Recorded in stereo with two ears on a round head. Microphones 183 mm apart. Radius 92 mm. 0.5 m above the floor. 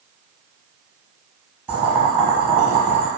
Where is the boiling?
10° right (ahead or behind), 1.7 m.